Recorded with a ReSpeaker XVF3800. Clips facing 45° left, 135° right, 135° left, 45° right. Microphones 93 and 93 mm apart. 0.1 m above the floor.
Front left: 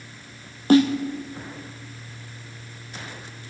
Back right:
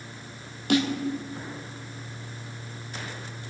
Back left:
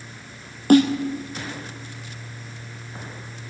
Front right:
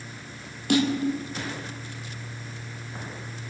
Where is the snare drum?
95° left, 1.7 m.